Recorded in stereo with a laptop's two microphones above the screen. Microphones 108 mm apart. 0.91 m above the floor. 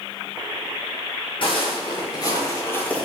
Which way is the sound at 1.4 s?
50° left (ahead or behind).